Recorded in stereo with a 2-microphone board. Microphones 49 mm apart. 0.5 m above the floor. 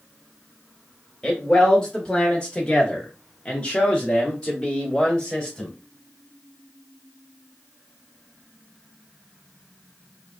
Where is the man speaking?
15° left (ahead or behind), 1.4 m; by 5.7 s 10° left (ahead or behind), 1.3 m.